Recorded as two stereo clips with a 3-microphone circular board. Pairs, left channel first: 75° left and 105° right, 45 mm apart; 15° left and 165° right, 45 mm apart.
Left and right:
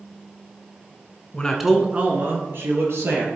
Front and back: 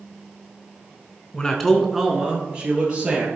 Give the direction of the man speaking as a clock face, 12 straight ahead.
10 o'clock.